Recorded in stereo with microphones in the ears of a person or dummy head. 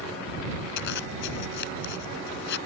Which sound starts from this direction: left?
A zipper, at 0.8 s.